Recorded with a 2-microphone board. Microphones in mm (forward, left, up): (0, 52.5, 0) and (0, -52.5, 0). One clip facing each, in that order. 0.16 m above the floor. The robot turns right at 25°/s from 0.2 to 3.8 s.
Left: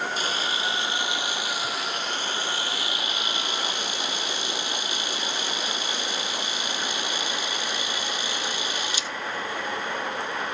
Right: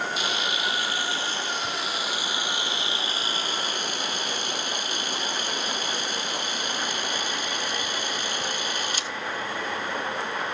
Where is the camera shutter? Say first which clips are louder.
Even; 140° left, 0.9 m; by 9.1 s 130° right, 0.9 m.